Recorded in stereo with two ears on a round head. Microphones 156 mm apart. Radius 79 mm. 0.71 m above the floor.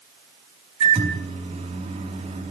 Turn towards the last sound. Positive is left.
turn(degrees=-30)  # may be behind; listen again after turning